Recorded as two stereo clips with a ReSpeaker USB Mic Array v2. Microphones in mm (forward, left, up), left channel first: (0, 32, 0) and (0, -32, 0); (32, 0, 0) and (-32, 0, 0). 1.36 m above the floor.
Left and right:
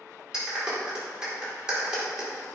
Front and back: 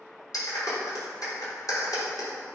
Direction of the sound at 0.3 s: 15° right.